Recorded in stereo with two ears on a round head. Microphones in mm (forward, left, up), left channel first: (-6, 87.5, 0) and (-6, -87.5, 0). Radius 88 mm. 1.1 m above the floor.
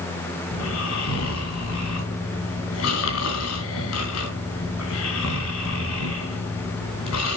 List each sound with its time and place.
0.5 s snoring: 80° left, 4.5 m